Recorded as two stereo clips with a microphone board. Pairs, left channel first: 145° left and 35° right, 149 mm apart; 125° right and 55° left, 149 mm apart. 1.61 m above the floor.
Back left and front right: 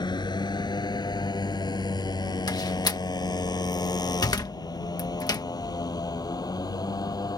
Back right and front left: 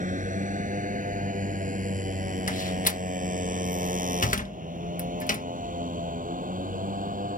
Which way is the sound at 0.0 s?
85° left.